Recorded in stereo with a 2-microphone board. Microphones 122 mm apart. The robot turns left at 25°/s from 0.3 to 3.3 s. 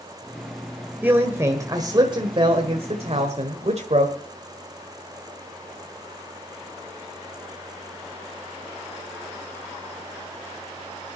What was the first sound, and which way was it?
A man speaking, 15° right.